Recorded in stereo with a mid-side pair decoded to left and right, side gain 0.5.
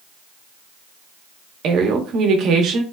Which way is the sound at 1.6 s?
65° right.